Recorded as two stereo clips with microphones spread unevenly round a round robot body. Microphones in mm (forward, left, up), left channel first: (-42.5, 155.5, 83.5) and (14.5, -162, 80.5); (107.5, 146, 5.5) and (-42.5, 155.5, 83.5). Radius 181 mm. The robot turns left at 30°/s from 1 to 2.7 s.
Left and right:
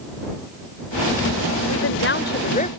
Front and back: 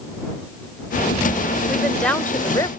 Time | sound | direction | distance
1.7 | a woman speaking | 65° left | ?